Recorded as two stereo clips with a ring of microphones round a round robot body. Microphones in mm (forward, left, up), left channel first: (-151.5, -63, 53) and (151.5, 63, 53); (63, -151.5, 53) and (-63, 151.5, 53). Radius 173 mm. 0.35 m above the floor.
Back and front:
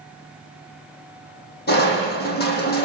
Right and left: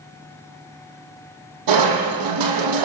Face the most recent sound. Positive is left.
turn(degrees=140)